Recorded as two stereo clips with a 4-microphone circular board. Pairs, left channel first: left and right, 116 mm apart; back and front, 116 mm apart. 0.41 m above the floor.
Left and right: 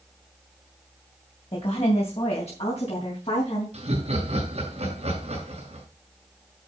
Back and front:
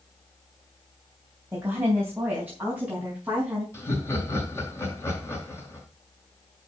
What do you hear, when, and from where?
1.5 s a woman speaking: 70° left, 3 m; by 3.6 s 80° left, 4.5 m
3.7 s laughter: 115° right, 5 m